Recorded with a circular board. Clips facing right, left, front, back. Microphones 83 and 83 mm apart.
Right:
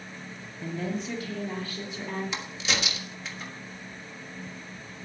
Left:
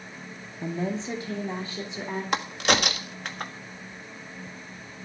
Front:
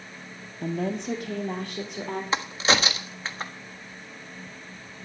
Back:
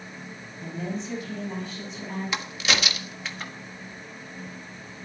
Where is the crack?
55° left, 1.3 m.